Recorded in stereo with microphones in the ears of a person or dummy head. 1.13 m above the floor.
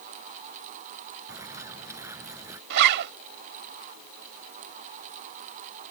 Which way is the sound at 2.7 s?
60° right (ahead or behind).